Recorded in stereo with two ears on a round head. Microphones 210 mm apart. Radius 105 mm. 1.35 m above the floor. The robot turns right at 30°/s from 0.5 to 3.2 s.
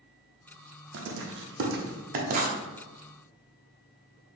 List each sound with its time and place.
0.9 s writing: 55° right (ahead or behind), 0.6 m; by 2.6 s 30° right (ahead or behind), 0.6 m